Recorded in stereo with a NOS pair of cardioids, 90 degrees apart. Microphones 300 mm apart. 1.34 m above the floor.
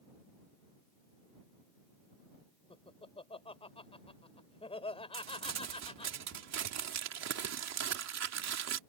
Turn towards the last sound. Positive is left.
turn(degrees=-60)